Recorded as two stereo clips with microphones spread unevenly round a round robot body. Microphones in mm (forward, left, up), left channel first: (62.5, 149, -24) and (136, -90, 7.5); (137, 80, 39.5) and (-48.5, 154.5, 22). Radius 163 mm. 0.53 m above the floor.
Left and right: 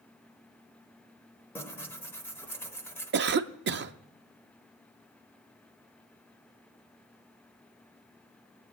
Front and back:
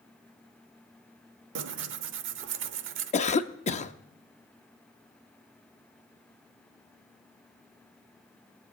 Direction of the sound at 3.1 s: 60° right.